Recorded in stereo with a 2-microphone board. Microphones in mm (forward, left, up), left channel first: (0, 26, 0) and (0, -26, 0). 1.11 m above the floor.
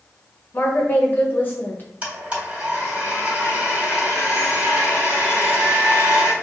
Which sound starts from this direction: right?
A blender, at 2.0 s.